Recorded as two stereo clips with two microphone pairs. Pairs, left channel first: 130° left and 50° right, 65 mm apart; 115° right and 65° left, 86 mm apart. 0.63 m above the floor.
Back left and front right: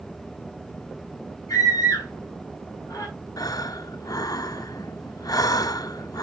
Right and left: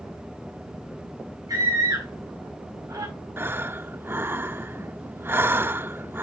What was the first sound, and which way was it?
A scream, 110° left.